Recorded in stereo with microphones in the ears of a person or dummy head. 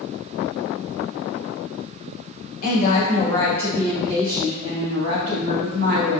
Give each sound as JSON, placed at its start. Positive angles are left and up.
{"t": 2.6, "sound": "a woman speaking", "side_deg": 45, "distance_m": 1.0}